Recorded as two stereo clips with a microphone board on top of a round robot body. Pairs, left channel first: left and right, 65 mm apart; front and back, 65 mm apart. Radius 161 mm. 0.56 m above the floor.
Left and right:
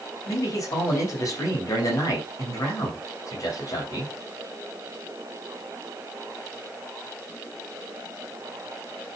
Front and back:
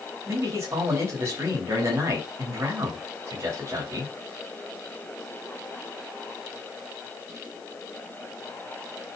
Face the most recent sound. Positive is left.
turn(degrees=130)